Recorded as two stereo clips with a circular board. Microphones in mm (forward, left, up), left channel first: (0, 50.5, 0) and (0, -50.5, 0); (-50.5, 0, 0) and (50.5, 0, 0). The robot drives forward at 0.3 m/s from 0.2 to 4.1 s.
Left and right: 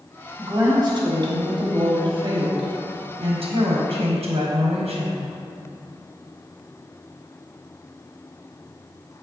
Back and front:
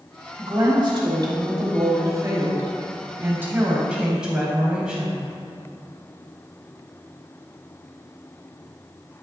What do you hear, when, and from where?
0.4 s a woman speaking: 40° right, 1.6 m; by 5.2 s 85° right, 1.0 m